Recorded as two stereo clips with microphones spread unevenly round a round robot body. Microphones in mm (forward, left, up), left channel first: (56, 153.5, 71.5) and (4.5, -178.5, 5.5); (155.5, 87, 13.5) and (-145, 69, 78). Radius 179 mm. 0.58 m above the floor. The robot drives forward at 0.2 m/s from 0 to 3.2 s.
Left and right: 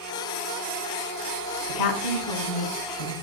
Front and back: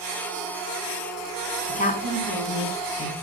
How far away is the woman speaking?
About 4.5 m.